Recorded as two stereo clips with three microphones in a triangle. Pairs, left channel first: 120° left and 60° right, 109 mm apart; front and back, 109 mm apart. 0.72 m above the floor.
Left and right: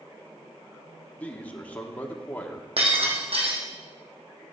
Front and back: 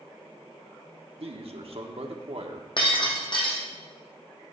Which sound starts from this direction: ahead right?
Breaking glass, at 2.8 s.